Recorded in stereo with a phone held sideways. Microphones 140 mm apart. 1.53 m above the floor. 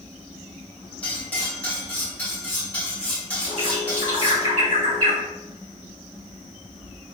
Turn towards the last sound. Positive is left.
turn(degrees=-50)  # may be behind; listen again after turning